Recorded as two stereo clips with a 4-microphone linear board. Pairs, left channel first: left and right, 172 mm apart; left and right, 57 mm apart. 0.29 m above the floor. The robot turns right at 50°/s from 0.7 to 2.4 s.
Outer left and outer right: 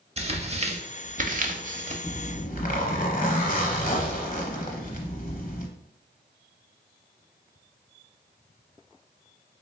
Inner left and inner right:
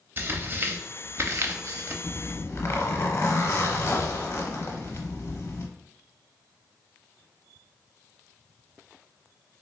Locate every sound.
0.2 s tearing paper: 35° right (ahead or behind), 0.5 m; by 1.9 s 40° right (ahead or behind), 0.5 m
2.0 s a zipper: 35° left (ahead or behind), 0.8 m; by 5.7 s 50° left (ahead or behind), 0.8 m